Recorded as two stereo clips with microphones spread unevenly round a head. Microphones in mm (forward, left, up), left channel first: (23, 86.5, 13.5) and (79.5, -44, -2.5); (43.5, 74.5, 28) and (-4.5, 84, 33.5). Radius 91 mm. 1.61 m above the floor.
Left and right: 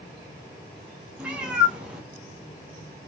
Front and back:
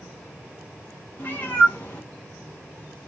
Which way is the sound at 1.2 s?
25° left.